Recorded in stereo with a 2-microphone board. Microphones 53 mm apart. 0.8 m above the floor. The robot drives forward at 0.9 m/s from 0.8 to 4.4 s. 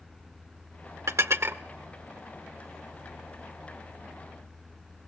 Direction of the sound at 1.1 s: 70° right (ahead or behind).